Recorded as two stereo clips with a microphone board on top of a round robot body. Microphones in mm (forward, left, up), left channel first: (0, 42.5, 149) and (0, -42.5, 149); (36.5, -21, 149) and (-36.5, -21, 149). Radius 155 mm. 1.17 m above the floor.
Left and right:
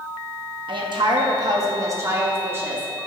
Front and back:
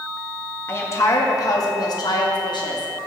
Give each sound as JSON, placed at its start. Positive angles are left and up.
{"t": 0.7, "sound": "a woman speaking", "azimuth_deg": -60, "distance_m": 1.8}